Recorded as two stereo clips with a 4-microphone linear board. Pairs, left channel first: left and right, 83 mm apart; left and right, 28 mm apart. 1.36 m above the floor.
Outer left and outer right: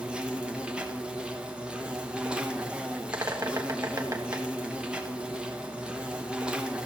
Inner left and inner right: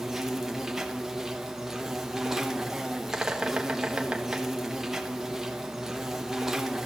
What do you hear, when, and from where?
0.0 s an insect: 10° right (ahead or behind), 1.1 m
3.1 s a bird: 35° right (ahead or behind), 1.2 m